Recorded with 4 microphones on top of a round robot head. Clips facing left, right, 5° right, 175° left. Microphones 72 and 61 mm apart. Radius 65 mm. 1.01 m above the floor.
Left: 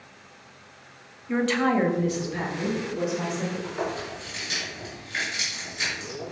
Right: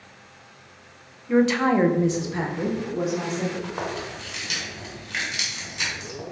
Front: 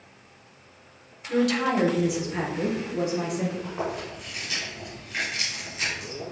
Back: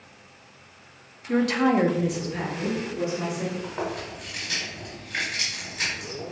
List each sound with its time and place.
1.3 s a woman speaking: 175° right, 0.7 m; by 3.5 s 30° right, 1.2 m
3.6 s chewing: 120° right, 1.7 m